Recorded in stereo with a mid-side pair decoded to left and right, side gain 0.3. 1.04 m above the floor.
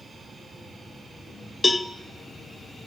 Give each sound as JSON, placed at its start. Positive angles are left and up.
{"t": 1.6, "sound": "a cowbell", "azimuth_deg": 30, "distance_m": 0.7}